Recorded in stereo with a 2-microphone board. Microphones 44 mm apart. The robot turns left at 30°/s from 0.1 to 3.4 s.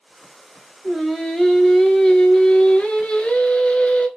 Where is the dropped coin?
No dropped coin in this recording.